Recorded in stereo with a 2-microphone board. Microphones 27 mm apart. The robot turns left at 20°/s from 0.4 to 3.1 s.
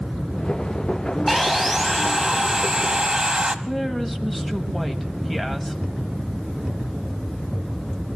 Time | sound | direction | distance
1.3 | sawing | 5° left | 0.8 m
3.6 | a woman speaking | 5° left (ahead or behind) | 1.3 m